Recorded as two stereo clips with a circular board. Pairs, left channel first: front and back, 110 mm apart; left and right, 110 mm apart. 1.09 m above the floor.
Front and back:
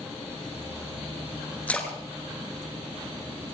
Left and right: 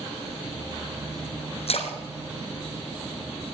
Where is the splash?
75° left, 2.5 m.